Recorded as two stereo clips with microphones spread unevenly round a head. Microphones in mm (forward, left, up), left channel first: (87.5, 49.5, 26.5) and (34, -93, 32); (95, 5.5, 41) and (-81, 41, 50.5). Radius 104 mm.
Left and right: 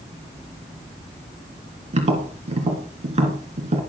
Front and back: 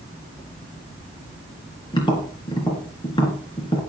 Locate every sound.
1.9 s tapping: 75° right, 3 m